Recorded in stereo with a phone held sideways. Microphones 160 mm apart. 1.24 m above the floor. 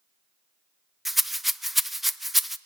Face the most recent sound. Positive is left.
turn(degrees=0)  # may be behind; listen again after turning